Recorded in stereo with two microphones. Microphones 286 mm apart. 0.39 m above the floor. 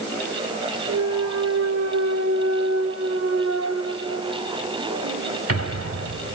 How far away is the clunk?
About 0.7 m.